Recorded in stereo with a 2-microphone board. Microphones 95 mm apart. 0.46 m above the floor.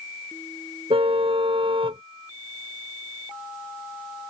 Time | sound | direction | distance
0.9 | a car horn | 85° right | ?